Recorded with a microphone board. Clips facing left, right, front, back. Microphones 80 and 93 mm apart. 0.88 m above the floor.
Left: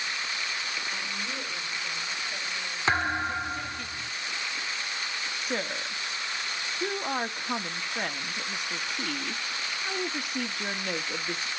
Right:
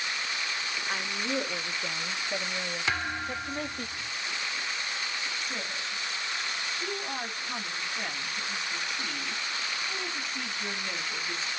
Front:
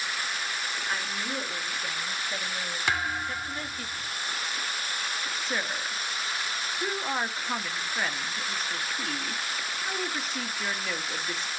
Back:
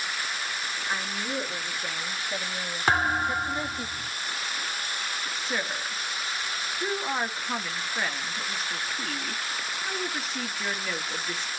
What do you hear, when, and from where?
0.9 s a woman speaking: 100° right, 2 m; by 3.9 s 125° right, 0.6 m
2.9 s a thud: 135° left, 0.7 m
5.3 s a woman speaking: 85° left, 1.7 m